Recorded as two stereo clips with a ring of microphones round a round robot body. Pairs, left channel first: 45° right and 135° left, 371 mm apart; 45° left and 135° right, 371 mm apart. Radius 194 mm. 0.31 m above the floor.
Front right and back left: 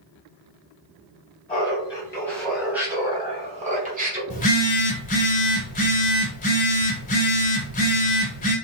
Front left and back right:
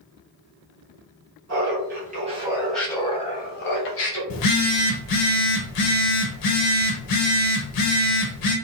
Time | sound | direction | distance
1.5 | laughter | 110° right | 1.5 m
4.3 | a phone buzzing | 20° left | 1.1 m